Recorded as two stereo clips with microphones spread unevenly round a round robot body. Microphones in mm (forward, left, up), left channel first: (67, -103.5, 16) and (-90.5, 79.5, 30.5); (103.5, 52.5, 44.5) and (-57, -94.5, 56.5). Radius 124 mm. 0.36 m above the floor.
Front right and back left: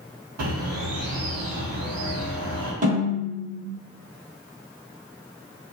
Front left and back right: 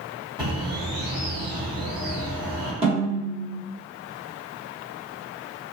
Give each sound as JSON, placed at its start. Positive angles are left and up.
{"t": 0.4, "sound": "a bird", "azimuth_deg": 155, "distance_m": 0.9}
{"t": 2.8, "sound": "a snare drum", "azimuth_deg": 175, "distance_m": 1.1}